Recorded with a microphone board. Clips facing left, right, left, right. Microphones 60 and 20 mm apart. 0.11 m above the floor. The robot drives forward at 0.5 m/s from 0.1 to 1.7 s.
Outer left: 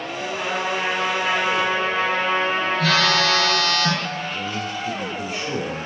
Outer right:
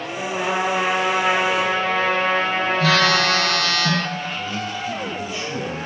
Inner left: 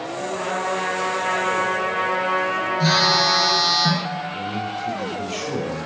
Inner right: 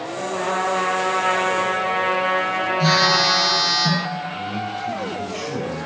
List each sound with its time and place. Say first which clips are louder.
0.2 s a trumpet: outer right 4 dB, inner right 3 dB; 55° right (ahead or behind), 2.5 m; by 3.6 s 65° right (ahead or behind), 2 m
2.8 s a phone buzzing: outer right 2 dB, inner right 1 dB; centre (ahead or behind), 2.5 m
4.3 s a man speaking: even, even; 55° left (ahead or behind), 3 m